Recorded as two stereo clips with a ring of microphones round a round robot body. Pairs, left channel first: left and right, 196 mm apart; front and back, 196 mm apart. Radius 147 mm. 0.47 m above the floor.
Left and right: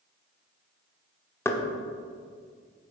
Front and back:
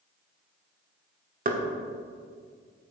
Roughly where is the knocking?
Behind.